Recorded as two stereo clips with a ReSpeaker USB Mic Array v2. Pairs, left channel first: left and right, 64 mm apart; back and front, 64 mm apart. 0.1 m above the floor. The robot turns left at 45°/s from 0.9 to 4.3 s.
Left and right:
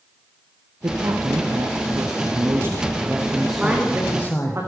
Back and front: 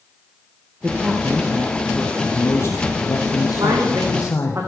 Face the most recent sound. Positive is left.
turn(degrees=-45)